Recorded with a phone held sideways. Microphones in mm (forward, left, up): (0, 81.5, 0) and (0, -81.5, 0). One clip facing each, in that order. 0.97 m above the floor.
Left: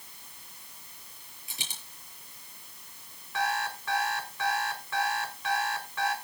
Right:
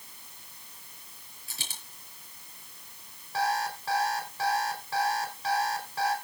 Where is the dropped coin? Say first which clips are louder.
Even; 15° left (ahead or behind), 7 m.